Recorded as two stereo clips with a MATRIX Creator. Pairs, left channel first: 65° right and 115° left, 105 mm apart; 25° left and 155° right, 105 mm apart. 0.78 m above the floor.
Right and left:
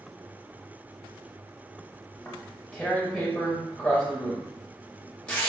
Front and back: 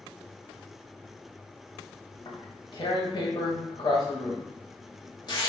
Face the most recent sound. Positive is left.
turn(degrees=5)